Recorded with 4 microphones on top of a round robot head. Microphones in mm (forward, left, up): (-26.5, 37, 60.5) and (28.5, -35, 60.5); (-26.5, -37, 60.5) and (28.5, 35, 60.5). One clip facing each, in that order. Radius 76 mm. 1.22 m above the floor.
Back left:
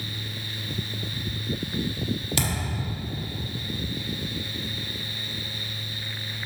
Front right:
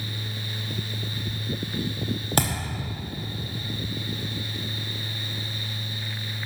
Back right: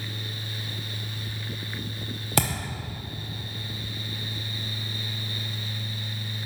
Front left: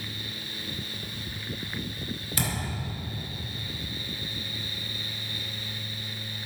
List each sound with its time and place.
2.4 s a thud: 100° right, 0.8 m